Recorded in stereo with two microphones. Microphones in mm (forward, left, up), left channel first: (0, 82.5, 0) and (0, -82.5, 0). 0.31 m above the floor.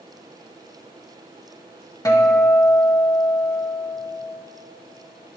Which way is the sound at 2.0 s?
20° left (ahead or behind).